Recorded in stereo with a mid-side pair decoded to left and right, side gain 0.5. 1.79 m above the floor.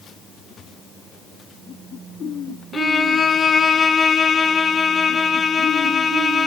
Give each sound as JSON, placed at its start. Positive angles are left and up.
{"t": 2.7, "sound": "a violin", "azimuth_deg": 35, "distance_m": 1.7}